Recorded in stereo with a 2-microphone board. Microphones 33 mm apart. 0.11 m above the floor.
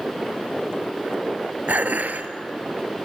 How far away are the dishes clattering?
About 1.4 m.